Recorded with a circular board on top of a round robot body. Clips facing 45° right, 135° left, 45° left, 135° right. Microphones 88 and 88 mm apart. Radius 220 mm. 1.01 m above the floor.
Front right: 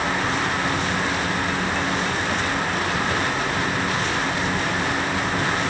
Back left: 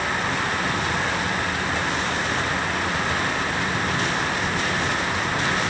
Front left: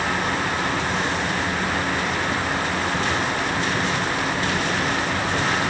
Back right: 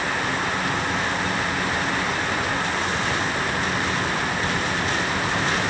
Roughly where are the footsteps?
I don't hear footsteps.